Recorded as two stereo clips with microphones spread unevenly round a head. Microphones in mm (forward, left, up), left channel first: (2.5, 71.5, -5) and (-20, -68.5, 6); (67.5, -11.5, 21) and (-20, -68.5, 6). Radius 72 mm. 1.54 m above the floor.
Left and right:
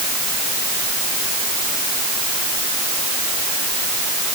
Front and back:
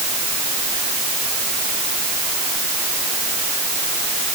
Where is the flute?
I don't hear a flute.